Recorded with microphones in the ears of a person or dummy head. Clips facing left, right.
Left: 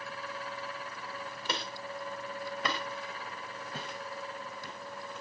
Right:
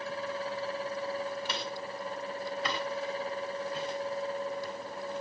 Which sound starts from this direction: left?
Footsteps, at 1.4 s.